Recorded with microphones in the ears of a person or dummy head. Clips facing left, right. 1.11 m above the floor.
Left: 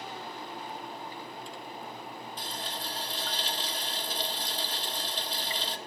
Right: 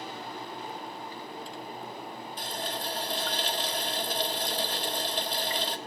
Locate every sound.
2.4 s a running tap: 45° right (ahead or behind), 0.6 m